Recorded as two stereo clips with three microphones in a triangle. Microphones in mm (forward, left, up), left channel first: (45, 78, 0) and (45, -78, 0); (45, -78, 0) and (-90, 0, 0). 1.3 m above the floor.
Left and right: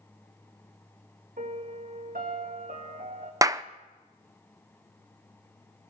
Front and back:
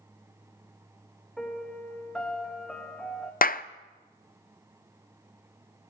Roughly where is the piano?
Behind right.